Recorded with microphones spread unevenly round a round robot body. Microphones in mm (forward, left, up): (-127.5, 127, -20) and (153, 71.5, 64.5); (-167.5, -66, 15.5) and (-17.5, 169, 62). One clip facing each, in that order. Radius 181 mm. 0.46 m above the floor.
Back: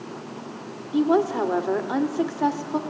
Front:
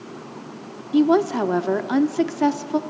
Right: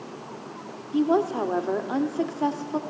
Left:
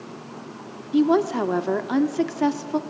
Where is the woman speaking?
20° left, 1.2 m.